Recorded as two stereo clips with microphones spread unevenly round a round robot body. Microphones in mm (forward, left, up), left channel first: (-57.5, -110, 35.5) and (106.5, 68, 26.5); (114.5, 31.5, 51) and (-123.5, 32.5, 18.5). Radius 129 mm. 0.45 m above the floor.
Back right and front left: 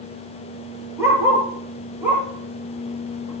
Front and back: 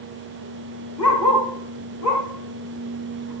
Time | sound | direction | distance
1.0 | a dog barking | 30° right | 4.5 m